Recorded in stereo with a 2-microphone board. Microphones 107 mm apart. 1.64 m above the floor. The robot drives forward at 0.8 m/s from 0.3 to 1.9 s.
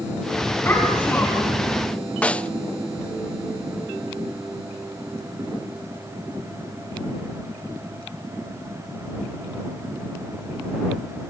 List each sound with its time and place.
0.7 s a child speaking: 25° left (ahead or behind), 9.5 m; by 1.6 s 20° left (ahead or behind), 10 m
2.2 s a snare drum: 10° left (ahead or behind), 0.5 m